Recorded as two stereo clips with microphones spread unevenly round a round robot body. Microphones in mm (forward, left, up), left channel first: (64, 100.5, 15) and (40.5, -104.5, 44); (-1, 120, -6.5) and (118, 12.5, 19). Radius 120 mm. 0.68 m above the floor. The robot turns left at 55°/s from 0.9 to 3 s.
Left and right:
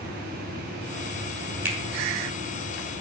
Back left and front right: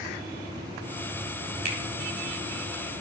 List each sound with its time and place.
1.6 s a finger snap: 15° right, 3 m; by 1.8 s 20° right, 3 m